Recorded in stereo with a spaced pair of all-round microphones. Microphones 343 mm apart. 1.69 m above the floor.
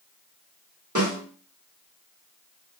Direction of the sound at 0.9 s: 60° right (ahead or behind).